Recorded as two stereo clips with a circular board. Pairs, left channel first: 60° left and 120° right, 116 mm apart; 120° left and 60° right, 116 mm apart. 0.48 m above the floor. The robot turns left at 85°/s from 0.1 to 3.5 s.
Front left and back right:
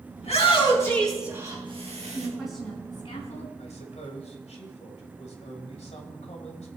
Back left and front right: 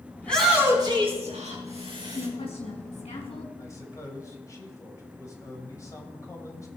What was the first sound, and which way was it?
A shout, 50° left.